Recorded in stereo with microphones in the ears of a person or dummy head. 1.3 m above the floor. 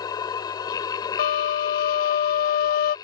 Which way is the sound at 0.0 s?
20° left (ahead or behind).